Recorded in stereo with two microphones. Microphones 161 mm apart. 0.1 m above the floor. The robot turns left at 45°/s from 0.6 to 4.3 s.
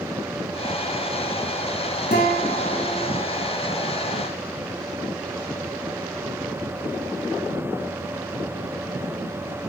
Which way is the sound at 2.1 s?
115° left.